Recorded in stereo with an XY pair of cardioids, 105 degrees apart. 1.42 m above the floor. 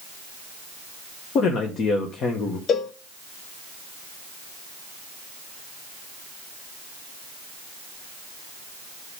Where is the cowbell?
65° left, 0.8 m.